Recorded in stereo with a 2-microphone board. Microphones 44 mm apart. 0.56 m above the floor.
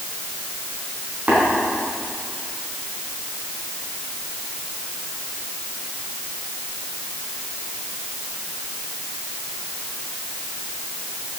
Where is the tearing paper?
I don't hear tearing paper.